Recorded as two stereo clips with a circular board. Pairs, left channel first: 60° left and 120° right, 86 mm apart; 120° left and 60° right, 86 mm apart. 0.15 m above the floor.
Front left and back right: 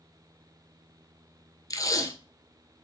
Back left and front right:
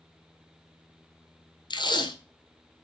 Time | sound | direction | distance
1.7 | tape being pulled | 105° left | 0.8 m